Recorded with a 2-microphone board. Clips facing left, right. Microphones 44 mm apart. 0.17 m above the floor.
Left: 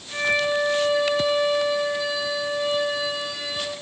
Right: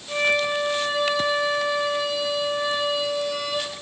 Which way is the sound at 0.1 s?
75° right (ahead or behind).